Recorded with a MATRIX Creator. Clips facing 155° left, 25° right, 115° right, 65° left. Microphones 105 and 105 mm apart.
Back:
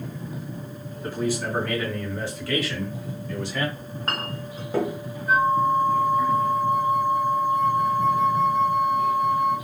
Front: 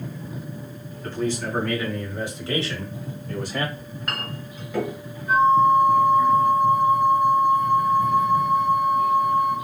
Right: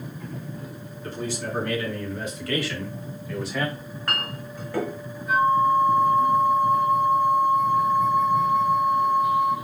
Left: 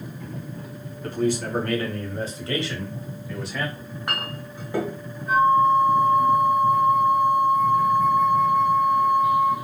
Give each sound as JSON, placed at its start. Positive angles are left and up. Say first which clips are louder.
{"t": 1.0, "sound": "a man speaking", "louder": "even, left 7 dB", "azimuth_deg": 85, "distance_m": 1.4}
{"t": 3.8, "sound": "a clink", "louder": "back 2 dB, even", "azimuth_deg": 130, "distance_m": 0.9}
{"t": 5.3, "sound": "a flute", "louder": "front 4 dB, left 2 dB", "azimuth_deg": 120, "distance_m": 1.3}